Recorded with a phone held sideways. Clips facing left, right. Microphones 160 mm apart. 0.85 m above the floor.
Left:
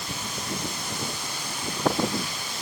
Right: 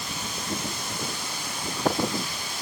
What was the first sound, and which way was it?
Only background noise.